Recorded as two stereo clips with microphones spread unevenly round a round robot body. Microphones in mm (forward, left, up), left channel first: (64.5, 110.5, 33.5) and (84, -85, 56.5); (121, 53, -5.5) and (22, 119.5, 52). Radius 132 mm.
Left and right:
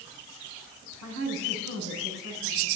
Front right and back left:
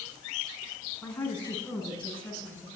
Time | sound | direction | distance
1.0 | a woman speaking | 115° right | 6 m